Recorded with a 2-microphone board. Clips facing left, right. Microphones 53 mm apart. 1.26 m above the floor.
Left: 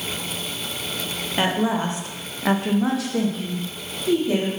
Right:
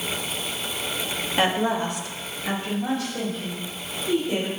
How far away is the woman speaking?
About 1.1 m.